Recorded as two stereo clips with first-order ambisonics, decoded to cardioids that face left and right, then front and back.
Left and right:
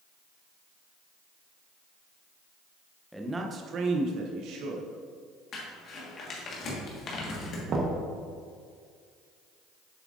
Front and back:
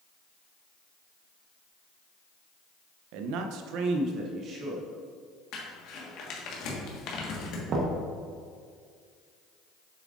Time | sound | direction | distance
3.1 | a man speaking | straight behind | 0.6 m
5.5 | crumpling | 35° left | 1.4 m
7.7 | knocking | 140° right | 1.0 m